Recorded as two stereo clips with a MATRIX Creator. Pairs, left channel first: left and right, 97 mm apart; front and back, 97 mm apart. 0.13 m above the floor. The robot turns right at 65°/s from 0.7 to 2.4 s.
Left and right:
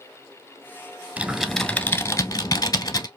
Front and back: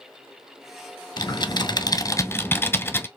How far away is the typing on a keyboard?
About 0.8 m.